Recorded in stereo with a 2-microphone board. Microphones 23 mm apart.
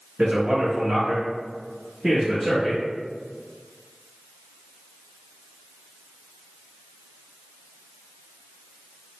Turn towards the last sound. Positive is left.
turn(degrees=-5)  # may be behind; listen again after turning